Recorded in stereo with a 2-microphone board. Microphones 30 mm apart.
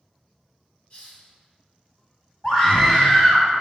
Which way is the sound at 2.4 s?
25° left (ahead or behind).